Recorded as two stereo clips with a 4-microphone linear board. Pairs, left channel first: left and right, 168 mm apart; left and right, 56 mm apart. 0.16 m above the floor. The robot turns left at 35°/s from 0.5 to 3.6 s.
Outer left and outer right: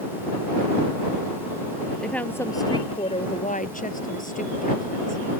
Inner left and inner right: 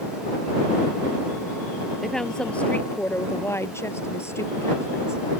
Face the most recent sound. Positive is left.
turn(degrees=120)